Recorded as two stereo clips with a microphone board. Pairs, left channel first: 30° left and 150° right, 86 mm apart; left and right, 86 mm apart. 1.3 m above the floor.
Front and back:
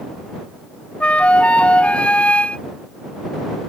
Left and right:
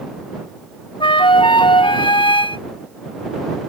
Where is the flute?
105° left.